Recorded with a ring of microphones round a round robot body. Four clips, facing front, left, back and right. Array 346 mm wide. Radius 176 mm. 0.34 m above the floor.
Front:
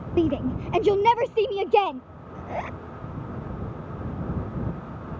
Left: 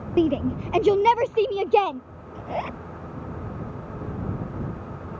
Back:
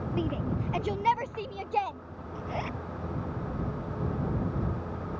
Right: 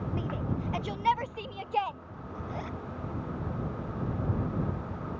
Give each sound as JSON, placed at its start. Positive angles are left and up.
{"t": 0.2, "sound": "a shout", "azimuth_deg": 65}
{"t": 2.4, "sound": "a zipper", "azimuth_deg": 75}